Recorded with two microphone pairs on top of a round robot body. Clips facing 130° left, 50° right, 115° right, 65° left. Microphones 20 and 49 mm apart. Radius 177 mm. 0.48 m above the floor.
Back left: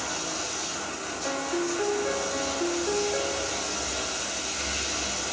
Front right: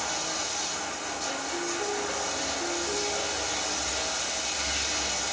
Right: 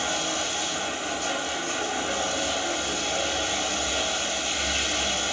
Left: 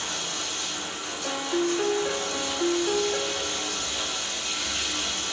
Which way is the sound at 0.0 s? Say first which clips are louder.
Even, right 5 dB; 130° right.